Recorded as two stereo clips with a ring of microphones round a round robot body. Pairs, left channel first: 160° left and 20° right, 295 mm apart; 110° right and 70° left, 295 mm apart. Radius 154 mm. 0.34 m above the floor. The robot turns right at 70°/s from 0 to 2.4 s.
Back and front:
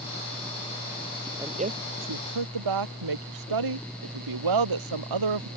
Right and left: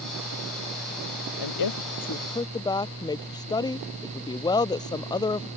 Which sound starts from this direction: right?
A woman speaking, at 1.4 s.